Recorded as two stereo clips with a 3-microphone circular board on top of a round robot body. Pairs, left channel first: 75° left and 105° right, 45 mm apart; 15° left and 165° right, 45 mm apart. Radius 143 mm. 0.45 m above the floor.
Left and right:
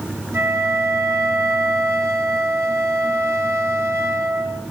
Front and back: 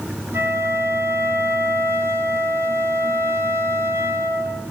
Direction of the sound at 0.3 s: 135° right.